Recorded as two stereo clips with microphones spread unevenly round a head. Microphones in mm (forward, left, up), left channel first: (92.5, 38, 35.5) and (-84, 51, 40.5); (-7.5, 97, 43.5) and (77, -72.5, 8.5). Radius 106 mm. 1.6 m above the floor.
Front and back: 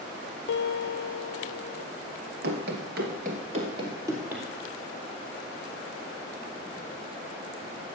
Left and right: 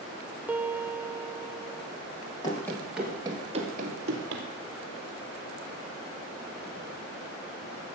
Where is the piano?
15° left, 0.7 m.